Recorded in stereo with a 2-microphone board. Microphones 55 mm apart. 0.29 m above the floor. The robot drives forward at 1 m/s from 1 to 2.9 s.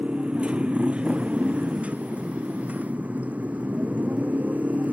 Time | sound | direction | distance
0.0 | a motorcycle | 20° right (ahead or behind) | ?